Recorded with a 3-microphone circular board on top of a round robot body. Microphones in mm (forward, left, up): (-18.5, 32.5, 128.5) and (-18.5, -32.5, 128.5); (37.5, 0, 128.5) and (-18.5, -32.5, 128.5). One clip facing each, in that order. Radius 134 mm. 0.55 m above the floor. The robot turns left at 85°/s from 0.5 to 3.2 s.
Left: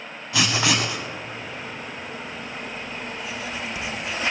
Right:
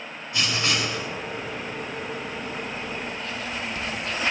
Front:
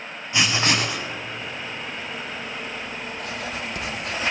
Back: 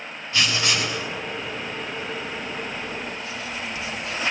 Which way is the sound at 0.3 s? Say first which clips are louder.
Left 4 dB, front 2 dB; 105° left.